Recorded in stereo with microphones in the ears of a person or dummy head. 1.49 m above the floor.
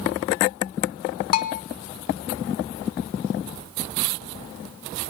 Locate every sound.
1.3 s a bell: 50° left (ahead or behind), 0.6 m